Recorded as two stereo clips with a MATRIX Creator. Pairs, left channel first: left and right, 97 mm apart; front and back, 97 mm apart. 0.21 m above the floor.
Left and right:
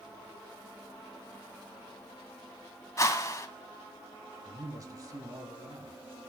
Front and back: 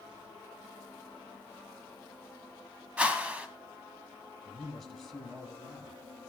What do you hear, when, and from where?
3.0 s a whoosh: 110° left, 1.0 m
4.5 s a man speaking: 85° right, 1.4 m